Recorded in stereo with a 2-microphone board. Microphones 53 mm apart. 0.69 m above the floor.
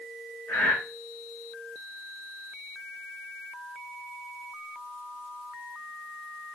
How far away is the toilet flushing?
No toilet flushing in this recording.